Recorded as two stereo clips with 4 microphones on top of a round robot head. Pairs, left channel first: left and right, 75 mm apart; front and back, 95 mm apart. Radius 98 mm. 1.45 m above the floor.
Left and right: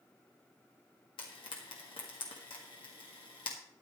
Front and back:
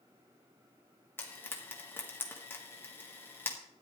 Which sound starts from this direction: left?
Frying, at 1.2 s.